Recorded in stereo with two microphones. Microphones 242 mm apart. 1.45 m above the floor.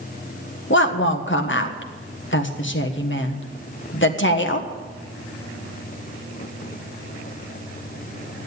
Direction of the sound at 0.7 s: 50° left (ahead or behind).